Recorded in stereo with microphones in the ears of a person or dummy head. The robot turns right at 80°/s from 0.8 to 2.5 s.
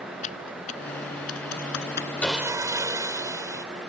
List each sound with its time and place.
0.2 s typing on a keyboard: 35° left (ahead or behind); by 2.1 s 40° left (ahead or behind)
2.2 s sawing: 5° left (ahead or behind); by 3.6 s 20° right (ahead or behind)